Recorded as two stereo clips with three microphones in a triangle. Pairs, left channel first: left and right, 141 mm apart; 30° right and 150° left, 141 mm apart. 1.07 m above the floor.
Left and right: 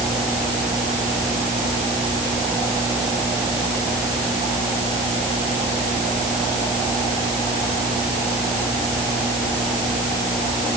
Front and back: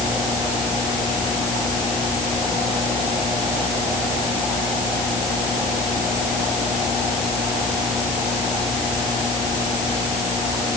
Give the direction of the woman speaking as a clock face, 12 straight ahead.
No woman speaking in this recording.